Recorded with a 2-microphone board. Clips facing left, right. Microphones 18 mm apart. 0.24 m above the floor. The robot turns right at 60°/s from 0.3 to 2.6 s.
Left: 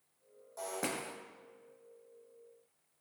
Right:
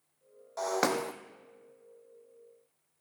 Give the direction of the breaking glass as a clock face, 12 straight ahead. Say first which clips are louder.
Right 9 dB; 4 o'clock.